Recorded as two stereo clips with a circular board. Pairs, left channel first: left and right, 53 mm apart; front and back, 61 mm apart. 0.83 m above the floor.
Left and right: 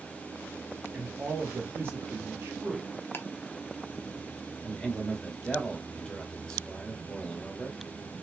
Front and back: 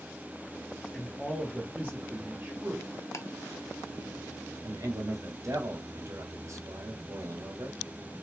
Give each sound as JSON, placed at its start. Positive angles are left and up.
{"t": 0.9, "sound": "a man speaking", "azimuth_deg": -50, "distance_m": 1.0}
{"t": 3.1, "sound": "ticking", "azimuth_deg": 40, "distance_m": 0.8}
{"t": 4.6, "sound": "a man speaking", "azimuth_deg": 165, "distance_m": 1.7}